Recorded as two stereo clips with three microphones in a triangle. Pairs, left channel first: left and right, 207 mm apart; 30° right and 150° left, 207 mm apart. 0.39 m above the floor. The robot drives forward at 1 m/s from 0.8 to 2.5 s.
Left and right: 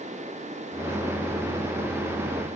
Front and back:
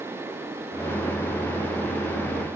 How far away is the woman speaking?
I don't hear a woman speaking.